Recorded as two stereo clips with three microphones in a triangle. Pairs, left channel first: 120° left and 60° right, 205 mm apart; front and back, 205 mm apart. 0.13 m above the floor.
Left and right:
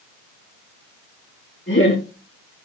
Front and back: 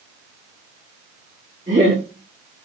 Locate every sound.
1.7 s laughter: 130° left, 5.5 m